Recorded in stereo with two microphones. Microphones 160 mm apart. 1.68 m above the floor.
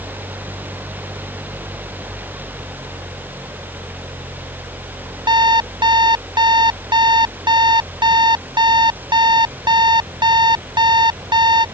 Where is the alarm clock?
30° right (ahead or behind).